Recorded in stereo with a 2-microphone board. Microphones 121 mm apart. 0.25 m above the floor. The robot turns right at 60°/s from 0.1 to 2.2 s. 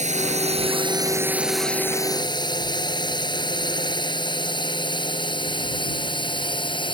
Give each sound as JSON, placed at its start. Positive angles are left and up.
{"t": 0.0, "sound": "a drone", "side_deg": -70}